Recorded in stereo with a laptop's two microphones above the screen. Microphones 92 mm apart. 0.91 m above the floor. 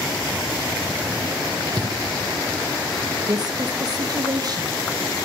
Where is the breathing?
45° right (ahead or behind), 0.8 m.